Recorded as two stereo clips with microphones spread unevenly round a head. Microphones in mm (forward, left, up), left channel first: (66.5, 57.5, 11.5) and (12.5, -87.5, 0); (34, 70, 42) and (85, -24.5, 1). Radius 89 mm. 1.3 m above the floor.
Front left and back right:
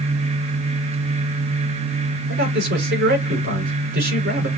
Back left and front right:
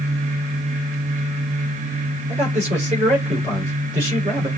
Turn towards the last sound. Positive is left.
turn(degrees=-105)